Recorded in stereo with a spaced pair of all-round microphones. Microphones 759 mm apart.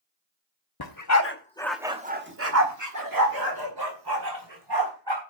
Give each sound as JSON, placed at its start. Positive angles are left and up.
{"t": 0.8, "sound": "a dog barking", "side_deg": 30, "distance_m": 1.1}